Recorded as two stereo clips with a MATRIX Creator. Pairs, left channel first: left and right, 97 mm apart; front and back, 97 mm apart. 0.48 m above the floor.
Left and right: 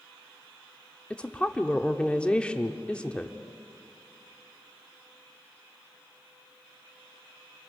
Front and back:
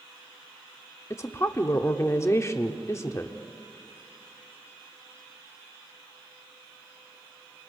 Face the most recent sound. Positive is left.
turn(degrees=20)